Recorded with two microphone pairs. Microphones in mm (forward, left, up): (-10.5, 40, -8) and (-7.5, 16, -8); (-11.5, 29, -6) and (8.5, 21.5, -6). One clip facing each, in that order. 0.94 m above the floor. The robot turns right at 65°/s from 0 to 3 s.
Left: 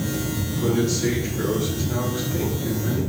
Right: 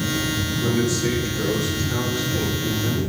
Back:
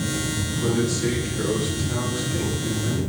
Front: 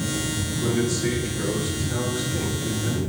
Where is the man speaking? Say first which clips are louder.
Left 1 dB, back 1 dB; 125° left, 4 m; by 3.0 s 80° right, 4 m.